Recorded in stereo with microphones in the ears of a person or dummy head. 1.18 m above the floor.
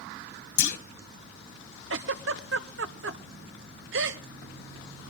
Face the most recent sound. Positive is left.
turn(degrees=-65)  # may be behind; listen again after turning